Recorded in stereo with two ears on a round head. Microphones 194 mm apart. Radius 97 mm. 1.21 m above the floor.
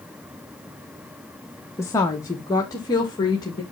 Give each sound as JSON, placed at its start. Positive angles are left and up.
{"t": 1.8, "sound": "a woman speaking", "side_deg": 15, "distance_m": 1.1}